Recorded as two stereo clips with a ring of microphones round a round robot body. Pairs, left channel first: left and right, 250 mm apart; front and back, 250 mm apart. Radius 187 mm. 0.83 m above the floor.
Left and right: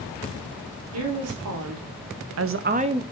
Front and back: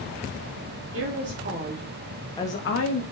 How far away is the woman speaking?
About 2 m.